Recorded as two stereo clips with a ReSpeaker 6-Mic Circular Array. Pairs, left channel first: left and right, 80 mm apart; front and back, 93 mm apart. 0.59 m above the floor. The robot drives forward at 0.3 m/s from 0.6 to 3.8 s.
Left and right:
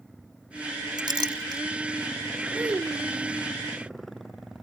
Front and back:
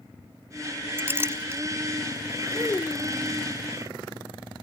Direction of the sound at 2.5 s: 45° right.